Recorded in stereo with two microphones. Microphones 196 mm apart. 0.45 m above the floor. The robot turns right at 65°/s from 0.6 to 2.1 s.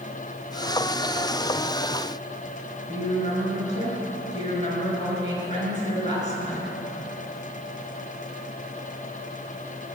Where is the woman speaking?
40° left (ahead or behind), 6 m.